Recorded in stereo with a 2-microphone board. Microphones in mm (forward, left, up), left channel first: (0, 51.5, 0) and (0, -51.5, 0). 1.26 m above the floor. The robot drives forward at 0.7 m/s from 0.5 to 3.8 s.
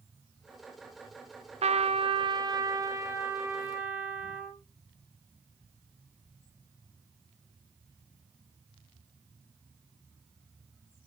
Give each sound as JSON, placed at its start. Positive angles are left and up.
{"t": 1.6, "sound": "a trumpet", "side_deg": -85, "distance_m": 0.5}